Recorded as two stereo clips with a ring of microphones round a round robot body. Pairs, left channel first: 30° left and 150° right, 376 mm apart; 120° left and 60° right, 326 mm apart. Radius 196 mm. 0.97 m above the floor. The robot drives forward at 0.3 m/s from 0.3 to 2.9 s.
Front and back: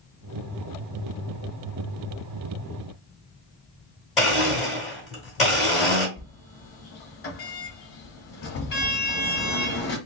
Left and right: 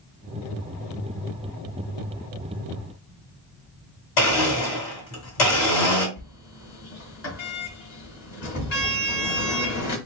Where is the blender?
120° left, 1.8 m.